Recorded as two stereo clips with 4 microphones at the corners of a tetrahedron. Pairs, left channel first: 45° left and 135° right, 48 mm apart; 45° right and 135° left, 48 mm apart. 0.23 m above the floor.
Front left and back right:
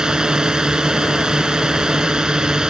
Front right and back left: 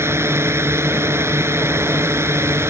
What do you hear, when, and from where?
0.0 s a drone: 150° left